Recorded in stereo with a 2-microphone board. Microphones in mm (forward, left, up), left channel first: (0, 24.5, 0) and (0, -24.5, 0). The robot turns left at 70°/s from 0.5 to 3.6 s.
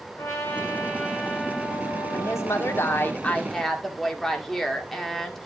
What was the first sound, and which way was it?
A trumpet, 65° left.